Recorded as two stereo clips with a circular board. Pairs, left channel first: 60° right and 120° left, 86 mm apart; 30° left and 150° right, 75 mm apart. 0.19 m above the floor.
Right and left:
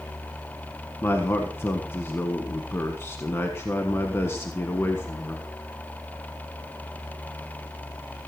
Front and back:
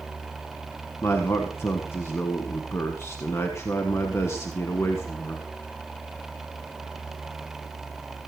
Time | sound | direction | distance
1.0 | a man speaking | 10° right | 1.4 m